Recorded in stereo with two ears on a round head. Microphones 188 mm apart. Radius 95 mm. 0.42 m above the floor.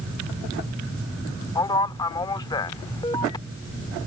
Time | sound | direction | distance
1.6 | a man speaking | 20° left (ahead or behind) | ?